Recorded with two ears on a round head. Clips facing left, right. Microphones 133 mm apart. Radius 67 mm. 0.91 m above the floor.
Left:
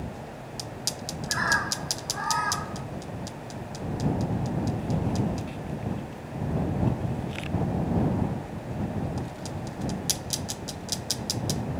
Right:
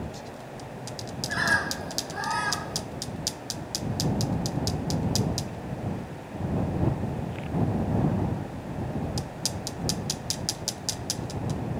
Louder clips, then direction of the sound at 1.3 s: Right 1 dB; 35° right (ahead or behind).